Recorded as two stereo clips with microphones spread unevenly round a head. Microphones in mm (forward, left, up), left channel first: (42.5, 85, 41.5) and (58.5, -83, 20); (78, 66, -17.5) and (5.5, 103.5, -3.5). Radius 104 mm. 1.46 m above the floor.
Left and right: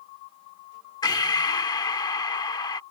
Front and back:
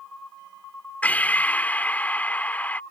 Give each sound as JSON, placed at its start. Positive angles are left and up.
{"t": 1.0, "sound": "breathing", "azimuth_deg": 45}